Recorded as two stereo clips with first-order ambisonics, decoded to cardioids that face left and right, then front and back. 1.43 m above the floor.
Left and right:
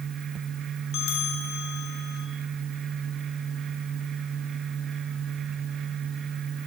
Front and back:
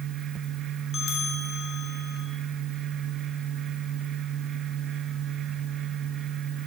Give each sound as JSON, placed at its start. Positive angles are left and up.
{"t": 0.9, "sound": "a bell", "azimuth_deg": 60, "distance_m": 1.4}